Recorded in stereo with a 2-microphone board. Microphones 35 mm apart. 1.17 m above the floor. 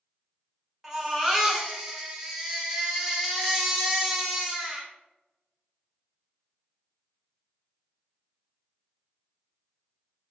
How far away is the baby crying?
About 1.4 m.